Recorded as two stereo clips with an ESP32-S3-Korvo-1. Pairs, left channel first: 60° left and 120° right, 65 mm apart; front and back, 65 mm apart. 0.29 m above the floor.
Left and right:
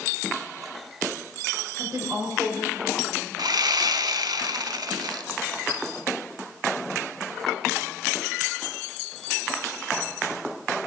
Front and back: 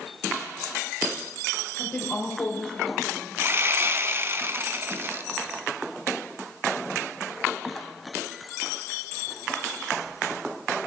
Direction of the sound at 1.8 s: 75° right.